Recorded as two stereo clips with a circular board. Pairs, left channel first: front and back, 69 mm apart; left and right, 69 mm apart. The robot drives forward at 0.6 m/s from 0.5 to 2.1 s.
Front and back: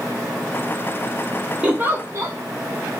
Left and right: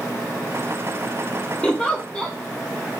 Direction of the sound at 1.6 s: 140° left.